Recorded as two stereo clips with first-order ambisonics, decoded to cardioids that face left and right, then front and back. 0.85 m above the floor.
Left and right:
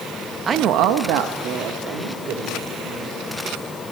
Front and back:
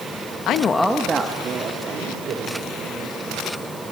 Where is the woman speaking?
25° right, 0.7 m; by 3.2 s 135° right, 4 m.